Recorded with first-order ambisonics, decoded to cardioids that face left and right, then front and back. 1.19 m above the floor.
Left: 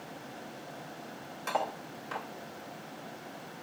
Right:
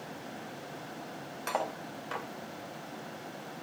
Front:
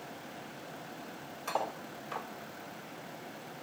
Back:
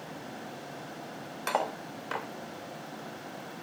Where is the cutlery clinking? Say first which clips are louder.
Left 1 dB, back 4 dB; 170° right, 0.9 m.